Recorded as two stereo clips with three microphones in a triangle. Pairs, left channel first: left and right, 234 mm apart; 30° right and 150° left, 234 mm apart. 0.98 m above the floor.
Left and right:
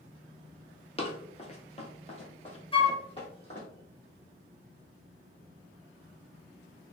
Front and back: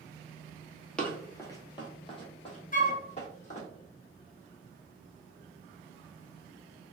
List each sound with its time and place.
1.0 s running footsteps: 50° left, 1.1 m; by 3.7 s 25° left, 2.5 m
2.7 s a flute: 20° left, 1.0 m